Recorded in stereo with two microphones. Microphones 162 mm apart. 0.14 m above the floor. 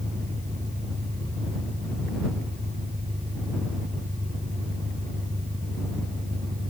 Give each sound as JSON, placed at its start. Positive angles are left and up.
{"t": 0.0, "sound": "an engine running", "side_deg": -45}